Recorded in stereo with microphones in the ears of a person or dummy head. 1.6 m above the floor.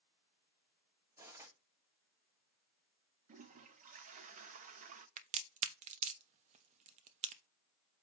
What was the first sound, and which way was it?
Cutlery clinking, 15° right (ahead or behind).